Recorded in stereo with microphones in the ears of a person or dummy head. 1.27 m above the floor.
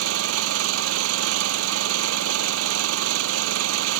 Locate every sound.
0.0 s an engine running: 70° right (ahead or behind)